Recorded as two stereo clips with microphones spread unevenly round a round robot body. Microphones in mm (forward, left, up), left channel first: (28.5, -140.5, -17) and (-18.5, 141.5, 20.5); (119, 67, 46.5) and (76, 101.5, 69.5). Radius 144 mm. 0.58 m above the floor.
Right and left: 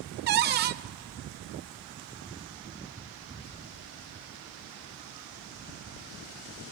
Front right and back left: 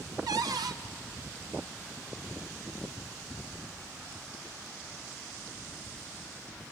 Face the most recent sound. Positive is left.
turn(degrees=155)